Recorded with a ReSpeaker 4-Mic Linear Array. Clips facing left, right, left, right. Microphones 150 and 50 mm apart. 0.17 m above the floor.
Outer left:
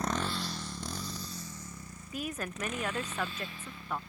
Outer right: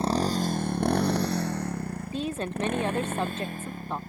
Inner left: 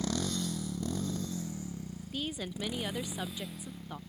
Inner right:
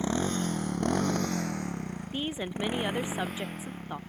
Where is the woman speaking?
30° right (ahead or behind).